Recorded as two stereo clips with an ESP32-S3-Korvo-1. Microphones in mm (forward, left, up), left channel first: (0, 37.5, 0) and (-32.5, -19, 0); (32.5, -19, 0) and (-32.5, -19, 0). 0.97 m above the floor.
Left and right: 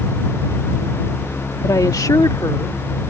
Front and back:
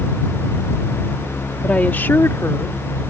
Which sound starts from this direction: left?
A woman speaking, at 1.6 s.